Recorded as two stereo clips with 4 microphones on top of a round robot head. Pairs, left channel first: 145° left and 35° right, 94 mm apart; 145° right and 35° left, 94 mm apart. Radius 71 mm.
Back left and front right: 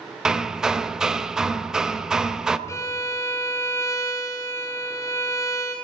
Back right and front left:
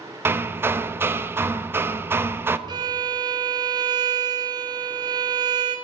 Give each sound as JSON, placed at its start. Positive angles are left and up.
{"t": 0.2, "sound": "hammering", "azimuth_deg": 40, "distance_m": 0.8}
{"t": 2.7, "sound": "a violin", "azimuth_deg": 85, "distance_m": 1.6}